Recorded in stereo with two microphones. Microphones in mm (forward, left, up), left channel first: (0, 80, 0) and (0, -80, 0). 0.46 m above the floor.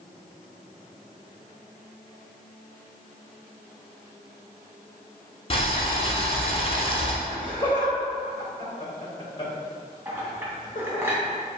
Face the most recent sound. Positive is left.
turn(degrees=-15)  # may be behind; listen again after turning